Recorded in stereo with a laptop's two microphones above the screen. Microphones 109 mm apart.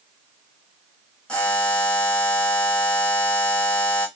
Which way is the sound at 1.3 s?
10° left (ahead or behind).